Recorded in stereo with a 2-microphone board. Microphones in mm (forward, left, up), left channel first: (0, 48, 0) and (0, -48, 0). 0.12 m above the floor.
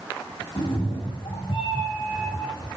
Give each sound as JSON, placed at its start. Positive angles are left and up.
{"t": 0.6, "sound": "a cat meowing", "side_deg": 60, "distance_m": 3.5}